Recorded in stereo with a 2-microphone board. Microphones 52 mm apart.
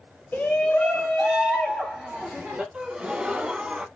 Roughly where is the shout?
Left.